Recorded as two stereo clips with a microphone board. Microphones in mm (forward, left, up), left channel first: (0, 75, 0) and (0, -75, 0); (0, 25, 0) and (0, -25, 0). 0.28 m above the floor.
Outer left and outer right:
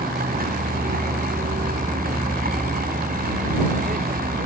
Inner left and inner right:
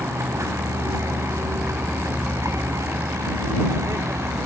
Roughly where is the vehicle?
Right.